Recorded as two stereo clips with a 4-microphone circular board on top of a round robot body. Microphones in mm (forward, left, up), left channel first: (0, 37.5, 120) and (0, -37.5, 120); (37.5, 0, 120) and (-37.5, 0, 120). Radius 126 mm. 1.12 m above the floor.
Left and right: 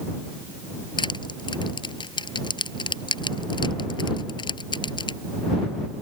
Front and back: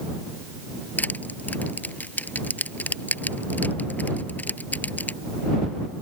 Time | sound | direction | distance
1.0 | crushing | 70° left | ?